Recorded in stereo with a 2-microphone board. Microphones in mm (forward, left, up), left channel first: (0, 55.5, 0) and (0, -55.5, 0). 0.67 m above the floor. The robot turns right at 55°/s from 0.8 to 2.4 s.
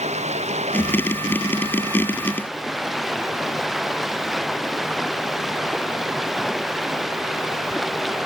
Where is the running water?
90° right; by 8.3 s straight ahead.